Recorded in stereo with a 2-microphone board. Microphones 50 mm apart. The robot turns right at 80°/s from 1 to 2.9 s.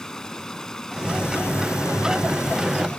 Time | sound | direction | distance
0.0 | running water | 10° left | ?